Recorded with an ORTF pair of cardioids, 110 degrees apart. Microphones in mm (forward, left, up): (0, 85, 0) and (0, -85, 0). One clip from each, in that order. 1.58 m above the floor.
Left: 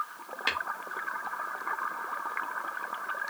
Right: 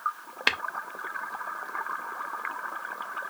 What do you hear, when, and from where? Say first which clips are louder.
0.5 s tapping: right 5 dB; 40° right, 0.8 m